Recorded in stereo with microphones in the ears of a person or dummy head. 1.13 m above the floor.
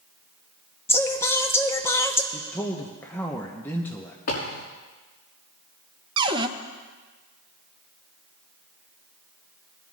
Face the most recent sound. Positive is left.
turn(degrees=-25)  # may be behind; listen again after turning